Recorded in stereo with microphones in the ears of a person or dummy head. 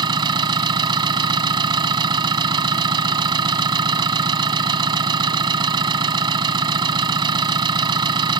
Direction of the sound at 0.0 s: 25° right (ahead or behind).